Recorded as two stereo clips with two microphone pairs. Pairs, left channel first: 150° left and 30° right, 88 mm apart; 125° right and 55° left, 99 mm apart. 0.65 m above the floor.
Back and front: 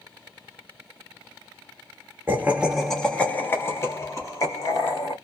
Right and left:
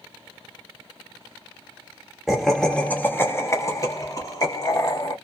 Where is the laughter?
25° right, 0.7 m; by 5.1 s 170° right, 1.6 m.